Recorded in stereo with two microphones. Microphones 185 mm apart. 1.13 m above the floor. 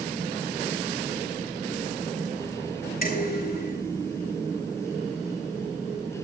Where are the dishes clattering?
55° left (ahead or behind), 7.5 m.